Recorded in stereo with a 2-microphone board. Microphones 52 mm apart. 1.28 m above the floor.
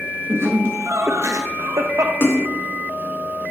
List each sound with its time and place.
0.3 s laughter: 50° right (ahead or behind), 1.6 m; by 2.1 s 80° right, 1.2 m
2.2 s a splash: 45° left (ahead or behind), 1.8 m